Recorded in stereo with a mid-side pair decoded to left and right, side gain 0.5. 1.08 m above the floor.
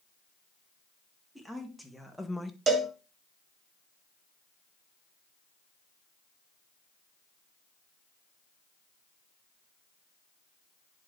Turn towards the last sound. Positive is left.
turn(degrees=-40)